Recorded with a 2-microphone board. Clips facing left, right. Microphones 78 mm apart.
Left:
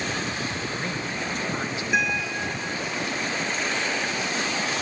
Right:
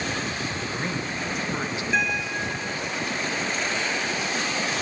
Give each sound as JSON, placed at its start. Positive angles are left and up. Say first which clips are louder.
{"t": 0.6, "sound": "a man speaking", "louder": "right 1 dB", "side_deg": -15, "distance_m": 1.0}
{"t": 1.9, "sound": "a guitar", "louder": "left 1 dB", "side_deg": 10, "distance_m": 2.0}